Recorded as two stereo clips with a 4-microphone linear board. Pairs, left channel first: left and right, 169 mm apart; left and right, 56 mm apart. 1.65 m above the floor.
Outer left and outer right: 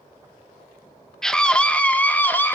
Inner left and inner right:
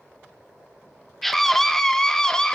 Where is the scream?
5° left (ahead or behind), 1.8 m; by 2.6 s 10° left (ahead or behind), 2.5 m.